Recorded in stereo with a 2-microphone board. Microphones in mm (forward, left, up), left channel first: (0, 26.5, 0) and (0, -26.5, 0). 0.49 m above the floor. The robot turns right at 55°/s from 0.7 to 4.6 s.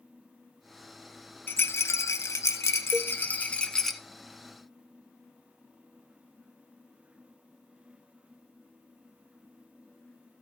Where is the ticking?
I don't hear ticking.